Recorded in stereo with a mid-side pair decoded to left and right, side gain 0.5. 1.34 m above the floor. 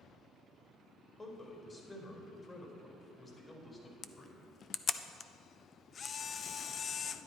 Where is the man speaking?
30° left, 4.5 m.